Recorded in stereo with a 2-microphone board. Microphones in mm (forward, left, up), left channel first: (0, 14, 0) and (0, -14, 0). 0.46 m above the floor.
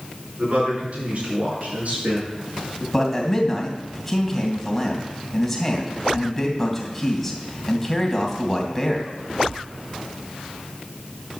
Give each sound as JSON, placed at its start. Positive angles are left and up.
{"t": 0.4, "sound": "a man speaking", "side_deg": -60, "distance_m": 6.0}
{"t": 2.9, "sound": "a man speaking", "side_deg": 10, "distance_m": 2.5}